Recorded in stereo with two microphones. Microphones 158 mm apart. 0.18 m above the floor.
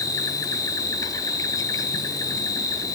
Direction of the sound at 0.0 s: 20° left (ahead or behind).